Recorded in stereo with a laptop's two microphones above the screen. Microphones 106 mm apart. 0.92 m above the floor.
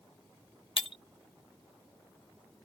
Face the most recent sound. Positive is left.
turn(degrees=55)  # may be behind; listen again after turning